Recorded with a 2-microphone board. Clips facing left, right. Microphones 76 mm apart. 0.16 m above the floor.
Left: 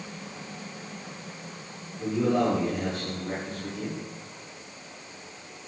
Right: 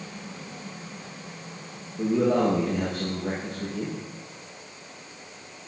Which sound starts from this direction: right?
A man speaking, at 2.0 s.